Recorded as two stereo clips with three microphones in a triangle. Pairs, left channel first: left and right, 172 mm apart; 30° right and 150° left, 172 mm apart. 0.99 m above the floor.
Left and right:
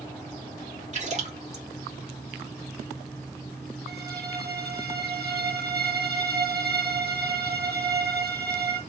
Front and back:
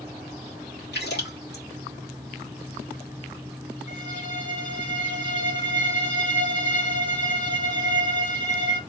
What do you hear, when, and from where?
0.9 s a splash: 40° right, 1.6 m
3.9 s a violin: 70° right, 1.9 m